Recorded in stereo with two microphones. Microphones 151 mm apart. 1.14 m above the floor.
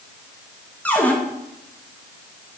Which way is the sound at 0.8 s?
10° left (ahead or behind).